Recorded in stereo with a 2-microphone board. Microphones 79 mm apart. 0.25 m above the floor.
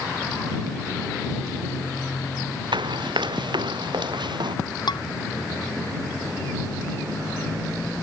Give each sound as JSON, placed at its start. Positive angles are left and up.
{"t": 2.7, "sound": "running footsteps", "side_deg": -85}
{"t": 4.9, "sound": "dishes clattering", "side_deg": 70}